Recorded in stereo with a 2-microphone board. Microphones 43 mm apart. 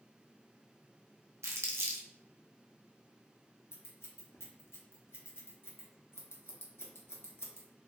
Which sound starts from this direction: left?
Scissors, at 3.7 s.